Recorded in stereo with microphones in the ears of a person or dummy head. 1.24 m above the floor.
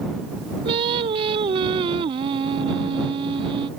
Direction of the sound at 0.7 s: 30° right (ahead or behind).